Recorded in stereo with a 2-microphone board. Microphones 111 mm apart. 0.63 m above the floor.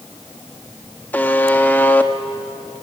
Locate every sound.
1.1 s a buzzer: 15° left (ahead or behind), 1.0 m